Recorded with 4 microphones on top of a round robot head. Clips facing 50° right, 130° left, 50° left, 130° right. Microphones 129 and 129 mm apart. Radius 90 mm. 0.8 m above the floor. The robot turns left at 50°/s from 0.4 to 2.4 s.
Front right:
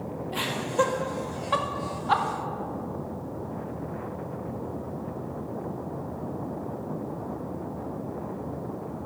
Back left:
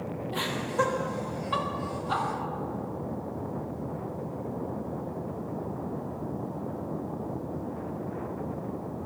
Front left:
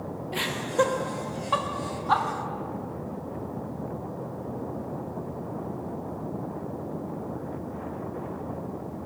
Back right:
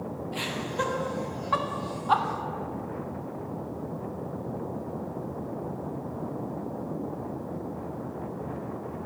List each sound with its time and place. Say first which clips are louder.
0.3 s laughter: front right 3 dB, front left 7 dB; 35° left, 1.6 m; by 2.2 s 55° right, 1.6 m